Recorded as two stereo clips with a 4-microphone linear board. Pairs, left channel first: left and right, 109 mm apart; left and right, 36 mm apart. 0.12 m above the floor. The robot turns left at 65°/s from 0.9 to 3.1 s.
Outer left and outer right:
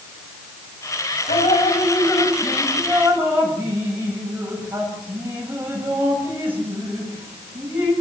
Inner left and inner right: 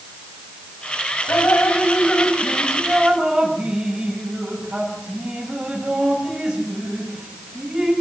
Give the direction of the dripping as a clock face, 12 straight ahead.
9 o'clock.